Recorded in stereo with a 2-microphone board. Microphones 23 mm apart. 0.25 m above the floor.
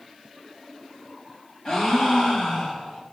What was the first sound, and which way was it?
A gasp, 40° left (ahead or behind).